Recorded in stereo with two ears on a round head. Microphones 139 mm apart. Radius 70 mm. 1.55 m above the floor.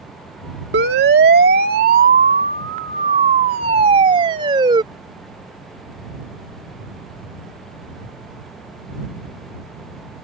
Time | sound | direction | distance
0.7 | a siren | 75° right (ahead or behind) | ?